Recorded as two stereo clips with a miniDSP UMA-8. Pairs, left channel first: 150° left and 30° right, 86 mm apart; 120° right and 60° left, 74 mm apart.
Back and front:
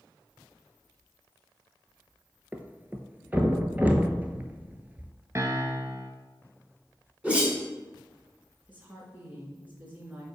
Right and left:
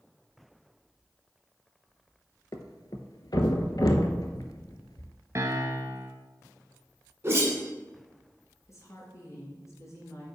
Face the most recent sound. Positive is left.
turn(degrees=-95)